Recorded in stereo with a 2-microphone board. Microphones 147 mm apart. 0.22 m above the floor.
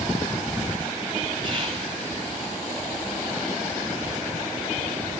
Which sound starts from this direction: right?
Whispering, at 1.4 s.